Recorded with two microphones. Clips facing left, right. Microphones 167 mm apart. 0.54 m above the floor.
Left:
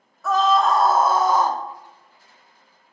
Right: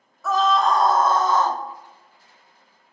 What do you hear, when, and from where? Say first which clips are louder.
0.2 s a scream: left 1 dB; centre (ahead or behind), 0.9 m; by 1.6 s 10° left (ahead or behind), 0.7 m